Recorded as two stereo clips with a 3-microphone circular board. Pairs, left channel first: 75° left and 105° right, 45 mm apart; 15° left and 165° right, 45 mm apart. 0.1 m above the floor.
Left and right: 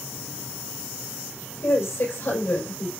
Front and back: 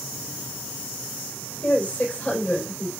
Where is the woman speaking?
75° left, 5.5 m.